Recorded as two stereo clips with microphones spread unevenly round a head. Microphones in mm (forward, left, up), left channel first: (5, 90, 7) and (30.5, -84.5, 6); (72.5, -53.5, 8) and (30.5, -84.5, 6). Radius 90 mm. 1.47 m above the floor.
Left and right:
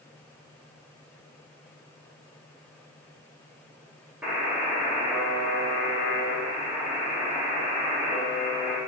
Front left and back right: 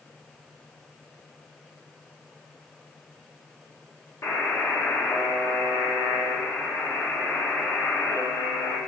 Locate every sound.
4.2 s a buzzer: straight ahead, 1.0 m